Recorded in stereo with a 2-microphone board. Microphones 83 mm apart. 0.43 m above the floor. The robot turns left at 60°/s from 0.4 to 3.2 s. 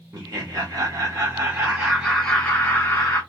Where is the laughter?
75° right, 1.1 m; by 3.2 s 120° left, 1.1 m.